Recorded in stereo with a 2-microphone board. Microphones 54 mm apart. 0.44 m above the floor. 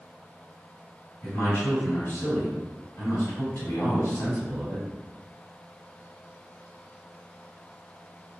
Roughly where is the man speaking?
Left.